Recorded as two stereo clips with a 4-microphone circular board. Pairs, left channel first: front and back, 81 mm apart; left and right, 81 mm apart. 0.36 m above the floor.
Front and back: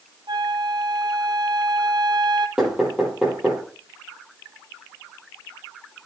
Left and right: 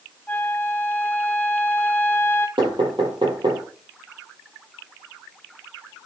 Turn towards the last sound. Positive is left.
turn(degrees=-100)